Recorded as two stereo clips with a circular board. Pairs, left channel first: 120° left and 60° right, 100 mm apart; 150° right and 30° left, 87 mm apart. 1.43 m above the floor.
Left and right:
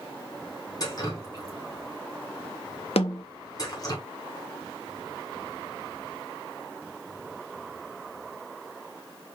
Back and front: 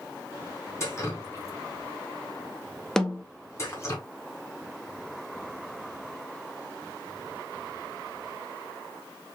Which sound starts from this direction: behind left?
A snare drum, at 3.0 s.